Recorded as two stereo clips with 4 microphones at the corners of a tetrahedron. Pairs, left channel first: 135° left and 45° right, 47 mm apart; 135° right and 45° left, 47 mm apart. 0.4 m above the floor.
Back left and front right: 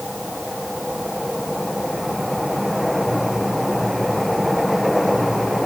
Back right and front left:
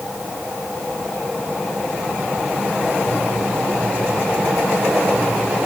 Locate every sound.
Only background noise.